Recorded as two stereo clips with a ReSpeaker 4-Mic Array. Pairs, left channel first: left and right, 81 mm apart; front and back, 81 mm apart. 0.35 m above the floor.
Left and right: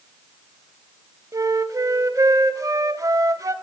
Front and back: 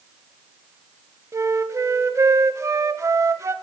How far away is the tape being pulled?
I don't hear tape being pulled.